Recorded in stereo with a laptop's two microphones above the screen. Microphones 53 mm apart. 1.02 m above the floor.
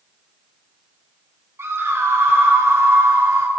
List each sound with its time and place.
1.6 s a scream: 55° right (ahead or behind), 0.6 m